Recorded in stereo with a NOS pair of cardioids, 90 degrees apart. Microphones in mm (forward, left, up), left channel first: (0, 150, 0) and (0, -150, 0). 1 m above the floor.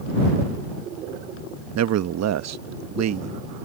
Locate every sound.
1.8 s a man speaking: 55° right